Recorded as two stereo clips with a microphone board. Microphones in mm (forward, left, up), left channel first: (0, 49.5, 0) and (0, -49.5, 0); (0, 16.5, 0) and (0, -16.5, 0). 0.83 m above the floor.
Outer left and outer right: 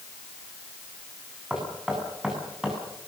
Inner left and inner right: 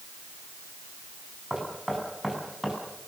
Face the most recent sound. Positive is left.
turn(degrees=-5)  # may be behind; listen again after turning